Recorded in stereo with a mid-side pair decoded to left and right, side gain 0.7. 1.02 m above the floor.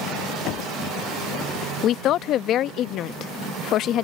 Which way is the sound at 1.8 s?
50° left.